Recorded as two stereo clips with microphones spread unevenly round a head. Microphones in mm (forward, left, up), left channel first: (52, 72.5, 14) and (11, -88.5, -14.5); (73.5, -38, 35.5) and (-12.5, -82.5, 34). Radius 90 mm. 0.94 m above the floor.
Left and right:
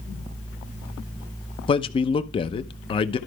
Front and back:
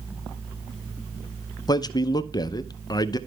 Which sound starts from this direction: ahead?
A man speaking, at 1.7 s.